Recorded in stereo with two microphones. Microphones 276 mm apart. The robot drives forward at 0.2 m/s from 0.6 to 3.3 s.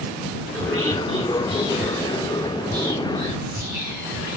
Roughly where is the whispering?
Right.